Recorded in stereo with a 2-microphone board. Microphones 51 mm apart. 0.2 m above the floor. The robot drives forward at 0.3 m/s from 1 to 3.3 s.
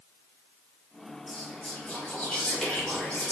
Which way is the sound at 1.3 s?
20° left (ahead or behind).